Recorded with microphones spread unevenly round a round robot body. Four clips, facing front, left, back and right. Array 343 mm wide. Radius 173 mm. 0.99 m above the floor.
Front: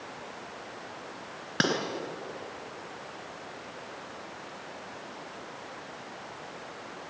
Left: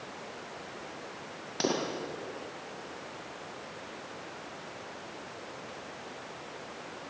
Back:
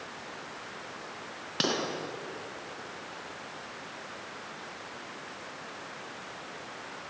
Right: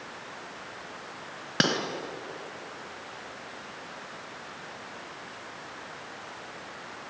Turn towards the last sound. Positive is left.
turn(degrees=-80)